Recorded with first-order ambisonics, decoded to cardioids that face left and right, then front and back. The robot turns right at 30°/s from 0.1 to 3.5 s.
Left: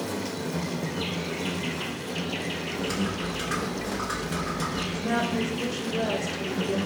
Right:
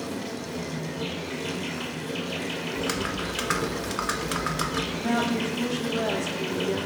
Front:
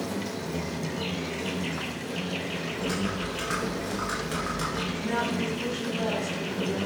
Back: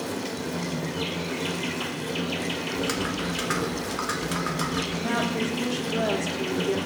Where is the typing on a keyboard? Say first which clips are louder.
Right 3 dB, back 2 dB; 130° right, 1.2 m; by 4.8 s 110° right, 1.2 m.